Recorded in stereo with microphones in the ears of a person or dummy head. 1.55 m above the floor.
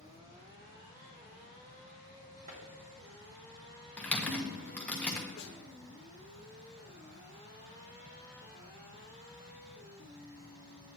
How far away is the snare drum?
About 1.0 m.